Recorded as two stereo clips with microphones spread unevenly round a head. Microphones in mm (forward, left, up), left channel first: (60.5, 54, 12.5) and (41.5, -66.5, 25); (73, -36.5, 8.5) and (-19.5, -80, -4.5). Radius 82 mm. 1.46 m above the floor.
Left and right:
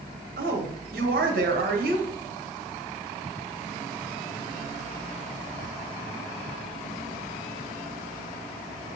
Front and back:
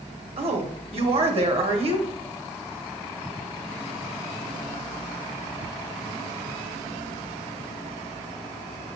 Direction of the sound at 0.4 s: 125° right.